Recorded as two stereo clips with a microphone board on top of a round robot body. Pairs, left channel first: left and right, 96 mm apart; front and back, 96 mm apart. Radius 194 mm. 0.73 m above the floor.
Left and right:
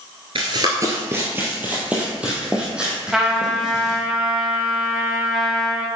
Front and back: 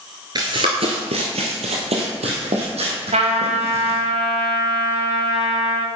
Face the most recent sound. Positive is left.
turn(degrees=-175)